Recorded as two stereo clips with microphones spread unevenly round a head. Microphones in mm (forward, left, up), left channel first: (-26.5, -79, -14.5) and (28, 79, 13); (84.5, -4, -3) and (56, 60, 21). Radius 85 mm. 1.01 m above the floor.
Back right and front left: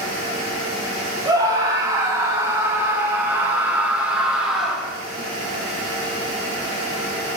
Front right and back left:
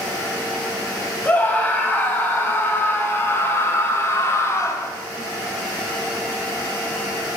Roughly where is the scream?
Ahead.